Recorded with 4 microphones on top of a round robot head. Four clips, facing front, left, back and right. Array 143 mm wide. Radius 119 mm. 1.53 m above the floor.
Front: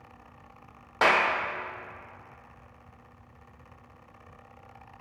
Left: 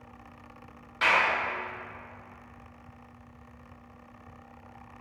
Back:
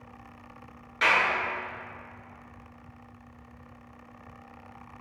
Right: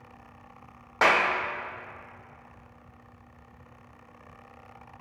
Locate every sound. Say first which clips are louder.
1.0 s a clap: right 3 dB, front 2 dB; 50° right, 0.6 m